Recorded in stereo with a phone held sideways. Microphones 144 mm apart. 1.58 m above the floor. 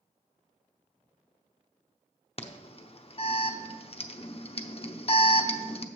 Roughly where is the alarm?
Left.